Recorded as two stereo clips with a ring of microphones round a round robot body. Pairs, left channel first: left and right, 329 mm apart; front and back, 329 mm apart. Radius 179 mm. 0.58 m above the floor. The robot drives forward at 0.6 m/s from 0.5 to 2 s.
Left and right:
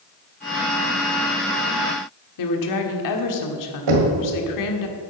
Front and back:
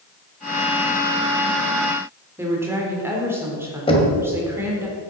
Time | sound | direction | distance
2.4 | a woman speaking | 95° left | 1.6 m
3.9 | knocking | 75° right | 1.9 m